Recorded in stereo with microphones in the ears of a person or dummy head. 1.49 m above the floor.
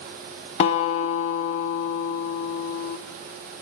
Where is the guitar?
35° left (ahead or behind), 0.6 m.